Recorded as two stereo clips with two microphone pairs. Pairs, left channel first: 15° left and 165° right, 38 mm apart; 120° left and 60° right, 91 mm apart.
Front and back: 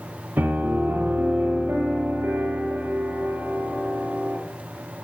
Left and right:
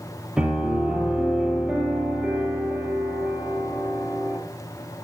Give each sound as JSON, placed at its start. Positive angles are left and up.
{"t": 0.4, "sound": "a piano", "azimuth_deg": -140, "distance_m": 2.5}